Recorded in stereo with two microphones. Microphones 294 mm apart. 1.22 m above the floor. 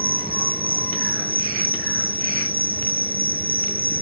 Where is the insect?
30° right (ahead or behind).